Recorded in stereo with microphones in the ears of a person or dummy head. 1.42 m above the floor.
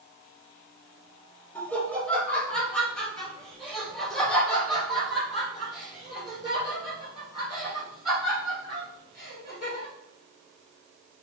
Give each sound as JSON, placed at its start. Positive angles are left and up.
{"t": 1.6, "sound": "laughter", "side_deg": 10, "distance_m": 2.0}